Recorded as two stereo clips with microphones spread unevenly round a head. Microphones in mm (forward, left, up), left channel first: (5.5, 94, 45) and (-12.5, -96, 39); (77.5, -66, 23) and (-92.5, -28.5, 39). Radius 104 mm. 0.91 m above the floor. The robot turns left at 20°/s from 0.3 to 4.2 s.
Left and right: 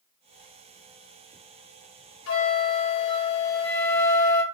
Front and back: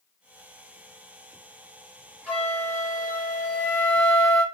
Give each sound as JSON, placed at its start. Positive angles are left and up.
{"t": 2.3, "sound": "a flute", "azimuth_deg": 75, "distance_m": 2.5}